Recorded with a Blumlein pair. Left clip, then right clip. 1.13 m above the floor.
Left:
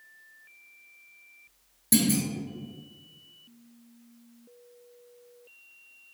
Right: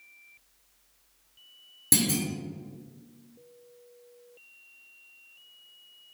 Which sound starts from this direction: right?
A clunk, at 1.9 s.